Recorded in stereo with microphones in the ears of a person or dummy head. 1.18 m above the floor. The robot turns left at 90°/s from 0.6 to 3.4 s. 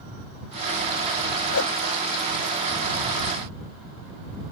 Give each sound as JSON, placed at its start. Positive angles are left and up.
{"t": 1.5, "sound": "a whoosh", "side_deg": 70}